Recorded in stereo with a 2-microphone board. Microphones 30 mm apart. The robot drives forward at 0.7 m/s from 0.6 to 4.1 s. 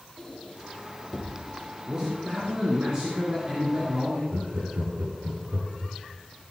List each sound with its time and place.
0.2 s a squeak: 5° left (ahead or behind), 5.5 m; by 1.7 s 10° left (ahead or behind), 4.5 m
1.9 s a man speaking: 30° right (ahead or behind), 4.5 m; by 4.2 s 40° right (ahead or behind), 3.5 m
4.3 s laughter: 70° right (ahead or behind), 4 m